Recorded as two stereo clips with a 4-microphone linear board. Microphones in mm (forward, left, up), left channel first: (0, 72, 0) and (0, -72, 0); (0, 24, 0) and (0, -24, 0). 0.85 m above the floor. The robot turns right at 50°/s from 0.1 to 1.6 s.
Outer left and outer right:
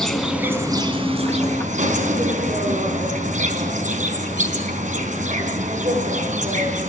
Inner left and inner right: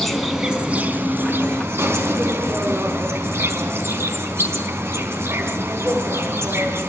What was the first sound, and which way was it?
An insect, 175° left.